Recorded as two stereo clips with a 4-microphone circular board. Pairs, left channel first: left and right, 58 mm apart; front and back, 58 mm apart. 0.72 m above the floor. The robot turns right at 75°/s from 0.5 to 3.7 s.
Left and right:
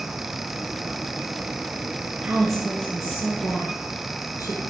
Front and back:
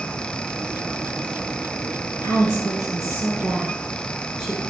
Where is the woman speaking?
20° right, 9 m; by 4.6 s 90° left, 9 m.